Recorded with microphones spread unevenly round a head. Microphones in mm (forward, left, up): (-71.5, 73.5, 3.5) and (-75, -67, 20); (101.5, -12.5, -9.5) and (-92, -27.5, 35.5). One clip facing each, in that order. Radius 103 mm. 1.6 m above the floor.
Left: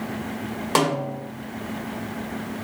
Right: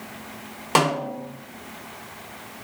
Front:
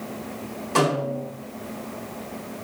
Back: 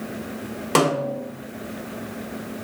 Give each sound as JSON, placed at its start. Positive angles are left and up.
{"t": 0.8, "sound": "a snare drum", "azimuth_deg": -170, "distance_m": 1.5}